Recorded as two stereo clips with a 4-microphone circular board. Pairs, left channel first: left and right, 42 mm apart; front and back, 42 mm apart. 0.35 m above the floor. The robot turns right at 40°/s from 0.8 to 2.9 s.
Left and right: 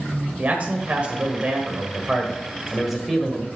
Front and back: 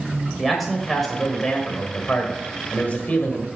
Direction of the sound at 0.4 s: 90° right.